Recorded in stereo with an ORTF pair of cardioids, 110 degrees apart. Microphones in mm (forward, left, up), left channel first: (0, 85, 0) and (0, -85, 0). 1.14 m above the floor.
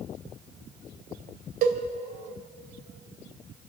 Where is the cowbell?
65° right, 2.5 m.